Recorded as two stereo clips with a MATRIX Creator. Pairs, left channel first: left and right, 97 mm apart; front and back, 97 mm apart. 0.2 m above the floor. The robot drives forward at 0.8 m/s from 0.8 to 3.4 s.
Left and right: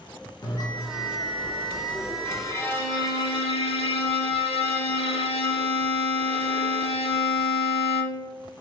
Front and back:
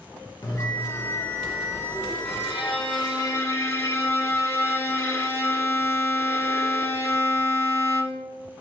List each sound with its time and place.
0.4 s a bell: 45° left, 1.0 m; by 2.5 s 145° left, 1.1 m
2.2 s a violin: 20° left, 1.2 m; by 8.3 s 65° left, 0.5 m